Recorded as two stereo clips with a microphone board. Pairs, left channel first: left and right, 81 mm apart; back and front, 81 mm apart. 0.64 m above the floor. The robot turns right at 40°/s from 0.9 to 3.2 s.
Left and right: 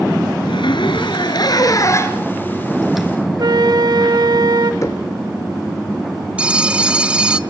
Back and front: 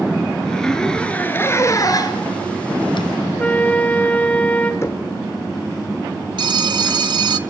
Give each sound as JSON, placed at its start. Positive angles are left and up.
{"t": 0.4, "sound": "a zipper", "azimuth_deg": 100, "distance_m": 2.0}
{"t": 3.4, "sound": "a flute", "azimuth_deg": -110, "distance_m": 2.0}
{"t": 4.8, "sound": "knocking", "azimuth_deg": 135, "distance_m": 2.0}
{"t": 6.4, "sound": "a phone ringing", "azimuth_deg": -15, "distance_m": 1.0}